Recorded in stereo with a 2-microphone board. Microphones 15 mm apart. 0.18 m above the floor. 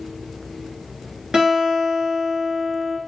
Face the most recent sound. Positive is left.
turn(degrees=-50)  # may be behind; listen again after turning